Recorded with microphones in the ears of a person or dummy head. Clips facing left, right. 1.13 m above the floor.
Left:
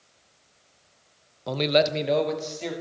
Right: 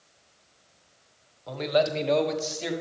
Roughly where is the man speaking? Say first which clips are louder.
Left 2 dB; left.